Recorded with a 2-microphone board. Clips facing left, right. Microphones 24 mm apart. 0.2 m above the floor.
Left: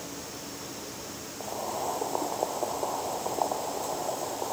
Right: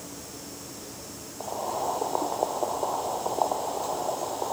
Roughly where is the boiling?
Centre.